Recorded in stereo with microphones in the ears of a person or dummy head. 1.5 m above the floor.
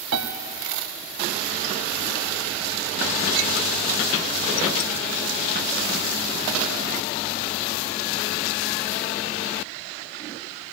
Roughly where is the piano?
Right.